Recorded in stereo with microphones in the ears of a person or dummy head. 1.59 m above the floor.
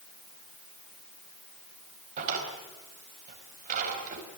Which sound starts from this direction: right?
A drawer, at 2.2 s.